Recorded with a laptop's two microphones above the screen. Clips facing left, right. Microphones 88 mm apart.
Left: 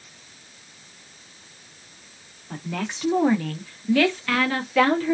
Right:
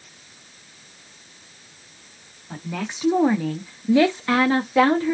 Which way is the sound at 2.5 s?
5° right (ahead or behind).